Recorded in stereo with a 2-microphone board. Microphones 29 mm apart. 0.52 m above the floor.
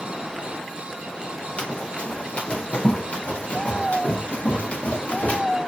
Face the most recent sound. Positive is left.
turn(degrees=75)  # may be behind; listen again after turning